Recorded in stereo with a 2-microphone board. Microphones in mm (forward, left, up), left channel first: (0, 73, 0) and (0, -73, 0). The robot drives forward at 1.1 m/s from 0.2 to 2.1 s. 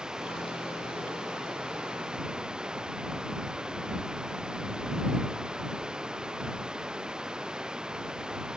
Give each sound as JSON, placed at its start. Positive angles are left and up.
{"t": 0.0, "sound": "running water", "side_deg": -5}